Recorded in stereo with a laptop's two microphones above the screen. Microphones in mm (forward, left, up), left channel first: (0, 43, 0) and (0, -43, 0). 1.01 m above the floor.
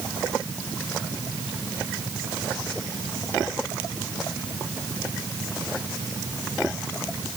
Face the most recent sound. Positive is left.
No sound to turn to.